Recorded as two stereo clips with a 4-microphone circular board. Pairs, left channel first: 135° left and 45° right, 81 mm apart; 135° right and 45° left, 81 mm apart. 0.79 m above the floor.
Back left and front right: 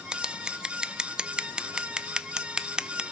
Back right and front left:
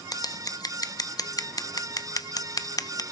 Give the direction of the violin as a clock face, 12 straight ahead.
No violin in this recording.